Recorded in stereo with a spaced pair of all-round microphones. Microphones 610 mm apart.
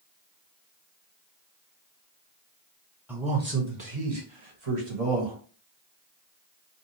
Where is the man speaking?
5° right (ahead or behind), 0.8 m; by 5.3 s 60° right (ahead or behind), 1.6 m.